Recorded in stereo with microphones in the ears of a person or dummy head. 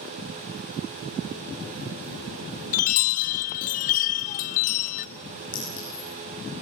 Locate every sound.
2.7 s a chime: 45° left (ahead or behind), 0.6 m
5.5 s a clink: 40° left (ahead or behind), 7.5 m